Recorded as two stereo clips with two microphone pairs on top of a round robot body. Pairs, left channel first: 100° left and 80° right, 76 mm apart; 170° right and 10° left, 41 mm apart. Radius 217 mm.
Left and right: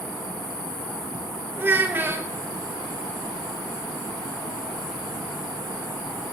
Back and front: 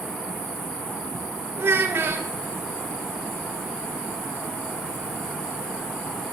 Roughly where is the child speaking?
Ahead.